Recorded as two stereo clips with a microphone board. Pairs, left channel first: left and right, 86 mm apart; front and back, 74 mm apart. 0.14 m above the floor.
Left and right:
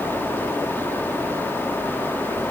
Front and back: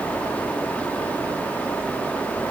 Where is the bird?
I don't hear a bird.